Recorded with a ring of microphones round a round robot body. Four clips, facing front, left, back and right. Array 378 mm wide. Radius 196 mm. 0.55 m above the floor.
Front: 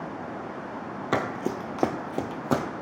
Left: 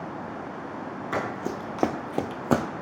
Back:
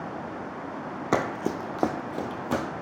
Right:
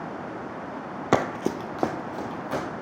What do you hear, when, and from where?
1.1 s running footsteps: 100° right, 0.7 m; by 2.6 s 75° left, 0.9 m